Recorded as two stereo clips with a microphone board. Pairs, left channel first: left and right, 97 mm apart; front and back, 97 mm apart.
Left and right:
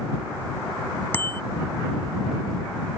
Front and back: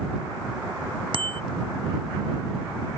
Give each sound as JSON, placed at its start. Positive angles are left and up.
{"t": 1.1, "sound": "a bicycle bell", "azimuth_deg": 160}